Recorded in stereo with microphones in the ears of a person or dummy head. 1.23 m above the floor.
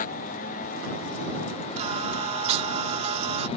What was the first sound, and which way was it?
A motorcycle, 45° left (ahead or behind).